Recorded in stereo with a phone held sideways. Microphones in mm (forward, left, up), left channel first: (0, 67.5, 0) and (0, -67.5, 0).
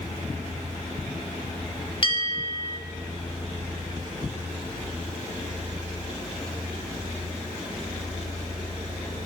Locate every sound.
2.0 s a bell: 40° left (ahead or behind), 2.5 m